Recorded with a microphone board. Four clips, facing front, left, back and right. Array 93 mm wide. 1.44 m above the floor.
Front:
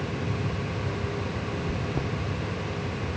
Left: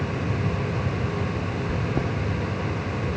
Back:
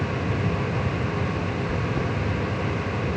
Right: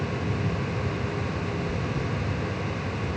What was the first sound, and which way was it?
Chewing, 90° left.